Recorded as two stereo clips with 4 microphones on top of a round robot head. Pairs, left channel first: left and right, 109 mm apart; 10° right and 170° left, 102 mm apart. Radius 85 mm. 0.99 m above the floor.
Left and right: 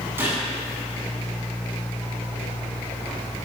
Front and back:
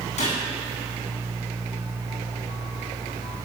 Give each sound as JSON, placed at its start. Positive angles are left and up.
{"t": 0.2, "sound": "a gunshot", "azimuth_deg": -15, "distance_m": 8.5}